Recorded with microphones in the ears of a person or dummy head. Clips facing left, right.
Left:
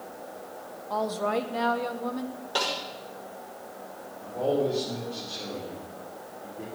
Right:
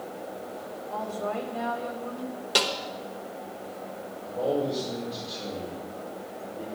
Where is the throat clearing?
No throat clearing in this recording.